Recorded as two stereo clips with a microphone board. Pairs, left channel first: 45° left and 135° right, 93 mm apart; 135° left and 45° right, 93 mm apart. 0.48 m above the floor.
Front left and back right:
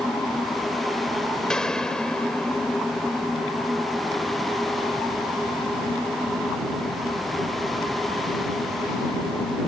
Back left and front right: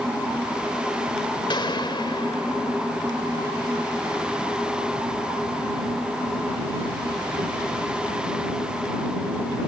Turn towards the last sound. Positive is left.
turn(degrees=130)